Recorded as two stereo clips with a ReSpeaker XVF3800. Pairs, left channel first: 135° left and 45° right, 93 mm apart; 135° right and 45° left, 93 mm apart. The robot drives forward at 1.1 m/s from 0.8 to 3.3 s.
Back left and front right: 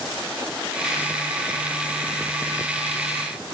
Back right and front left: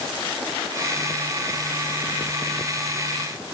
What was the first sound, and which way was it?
Only background noise.